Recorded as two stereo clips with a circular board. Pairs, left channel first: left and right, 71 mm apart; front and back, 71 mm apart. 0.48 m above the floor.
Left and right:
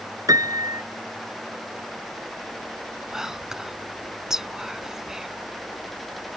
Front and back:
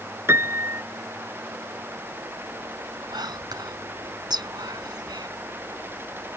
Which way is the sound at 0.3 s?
125° right.